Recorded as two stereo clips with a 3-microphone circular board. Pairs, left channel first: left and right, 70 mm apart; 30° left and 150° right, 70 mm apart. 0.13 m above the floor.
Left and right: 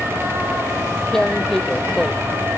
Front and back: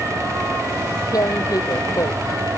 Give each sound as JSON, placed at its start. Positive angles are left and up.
{"t": 1.1, "sound": "tearing paper", "azimuth_deg": 10}